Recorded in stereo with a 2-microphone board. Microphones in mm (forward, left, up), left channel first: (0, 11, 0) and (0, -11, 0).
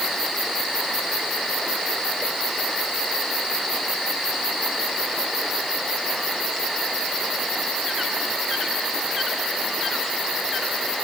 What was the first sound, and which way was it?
Only background noise.